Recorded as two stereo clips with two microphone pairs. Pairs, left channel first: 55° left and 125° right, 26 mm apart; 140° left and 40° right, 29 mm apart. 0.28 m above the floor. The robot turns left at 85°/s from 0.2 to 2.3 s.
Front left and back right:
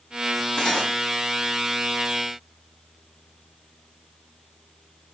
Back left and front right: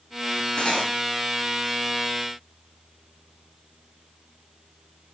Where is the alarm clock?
No alarm clock in this recording.